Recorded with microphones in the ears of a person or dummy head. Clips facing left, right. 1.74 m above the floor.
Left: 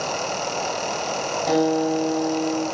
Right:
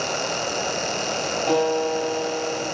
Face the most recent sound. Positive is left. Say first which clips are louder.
# left 2 dB
turn(degrees=0)  # may be behind; listen again after turning